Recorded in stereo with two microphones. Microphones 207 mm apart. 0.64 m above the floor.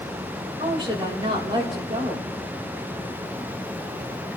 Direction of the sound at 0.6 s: 25° right (ahead or behind).